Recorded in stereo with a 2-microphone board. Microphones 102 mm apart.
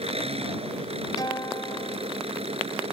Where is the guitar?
40° left (ahead or behind).